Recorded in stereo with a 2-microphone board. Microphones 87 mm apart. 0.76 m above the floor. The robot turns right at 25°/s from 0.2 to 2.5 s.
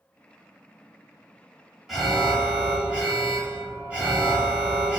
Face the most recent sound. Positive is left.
turn(degrees=-15)  # may be behind; listen again after turning